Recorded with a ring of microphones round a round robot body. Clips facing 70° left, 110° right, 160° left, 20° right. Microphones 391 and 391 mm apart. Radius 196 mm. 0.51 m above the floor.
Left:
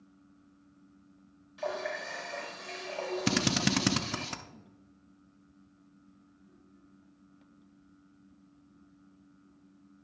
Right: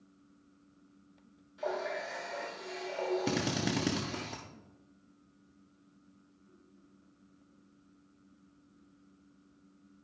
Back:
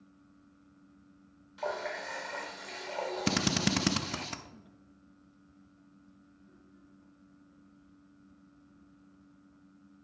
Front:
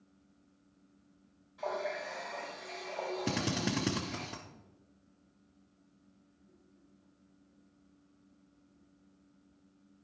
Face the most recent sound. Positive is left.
turn(degrees=110)